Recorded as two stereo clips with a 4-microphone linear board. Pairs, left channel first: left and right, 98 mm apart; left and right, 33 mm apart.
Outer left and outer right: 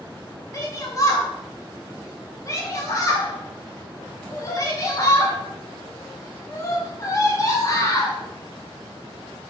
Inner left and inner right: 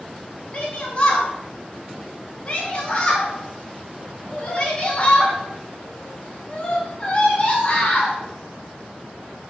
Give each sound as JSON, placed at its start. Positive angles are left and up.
{"t": 0.5, "sound": "a shout", "side_deg": 35, "distance_m": 0.7}